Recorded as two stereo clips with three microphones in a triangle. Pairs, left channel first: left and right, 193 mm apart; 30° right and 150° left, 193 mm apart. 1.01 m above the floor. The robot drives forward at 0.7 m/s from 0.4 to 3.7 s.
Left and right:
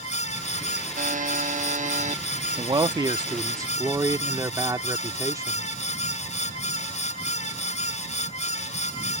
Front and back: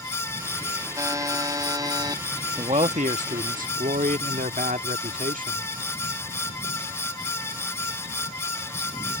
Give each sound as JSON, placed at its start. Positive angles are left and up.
{"t": 1.0, "sound": "a buzzer", "azimuth_deg": -135}
{"t": 2.6, "sound": "a man speaking", "azimuth_deg": -150}